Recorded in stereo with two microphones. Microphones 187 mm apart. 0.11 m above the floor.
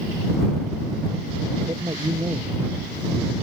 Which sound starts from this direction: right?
A man speaking, at 1.7 s.